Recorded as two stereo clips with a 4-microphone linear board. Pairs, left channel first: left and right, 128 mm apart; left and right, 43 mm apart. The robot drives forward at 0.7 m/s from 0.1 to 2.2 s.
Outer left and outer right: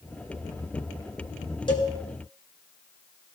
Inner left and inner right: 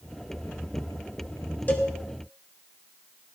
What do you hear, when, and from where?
1.7 s a cowbell: 40° left (ahead or behind), 1.7 m; by 1.9 s 35° left (ahead or behind), 1.8 m